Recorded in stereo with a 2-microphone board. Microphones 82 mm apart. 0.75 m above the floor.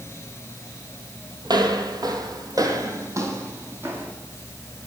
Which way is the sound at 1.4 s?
55° right (ahead or behind).